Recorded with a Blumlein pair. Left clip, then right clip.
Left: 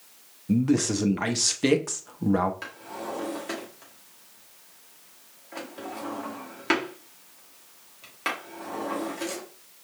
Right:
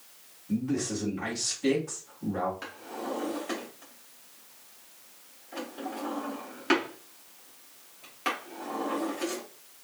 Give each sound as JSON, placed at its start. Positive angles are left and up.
{"t": 0.5, "sound": "a man speaking", "azimuth_deg": 55, "distance_m": 1.1}
{"t": 2.6, "sound": "a drawer", "azimuth_deg": 10, "distance_m": 2.5}